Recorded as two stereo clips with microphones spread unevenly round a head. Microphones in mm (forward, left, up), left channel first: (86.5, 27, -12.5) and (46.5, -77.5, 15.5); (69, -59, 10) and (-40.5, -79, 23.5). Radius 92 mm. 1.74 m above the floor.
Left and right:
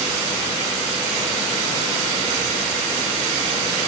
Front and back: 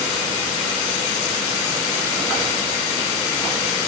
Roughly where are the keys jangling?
I don't hear keys jangling.